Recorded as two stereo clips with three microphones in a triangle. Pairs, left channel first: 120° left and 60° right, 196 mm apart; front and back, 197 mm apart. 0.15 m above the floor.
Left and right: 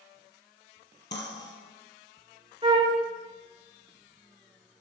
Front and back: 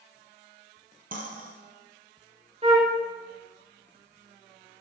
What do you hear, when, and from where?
1.1 s cutlery clinking: 140° left, 2 m
2.6 s a flute: 120° right, 2.5 m